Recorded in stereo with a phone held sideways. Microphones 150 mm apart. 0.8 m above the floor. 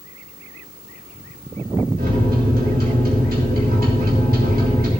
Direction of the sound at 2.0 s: 80° right.